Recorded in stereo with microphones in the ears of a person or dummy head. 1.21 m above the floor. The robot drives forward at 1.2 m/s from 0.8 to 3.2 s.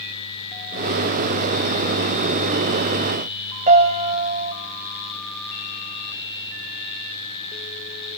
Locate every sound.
3.7 s a piano: 45° right (ahead or behind), 4 m